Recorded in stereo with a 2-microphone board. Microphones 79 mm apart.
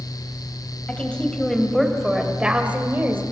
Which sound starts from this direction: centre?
A woman speaking, at 0.9 s.